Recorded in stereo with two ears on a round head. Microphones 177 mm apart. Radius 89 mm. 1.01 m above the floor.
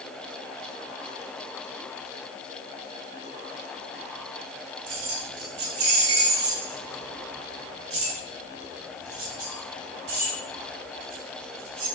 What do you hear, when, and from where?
4.9 s keys jangling: 85° right, 2 m; by 11.9 s 75° right (ahead or behind), 6 m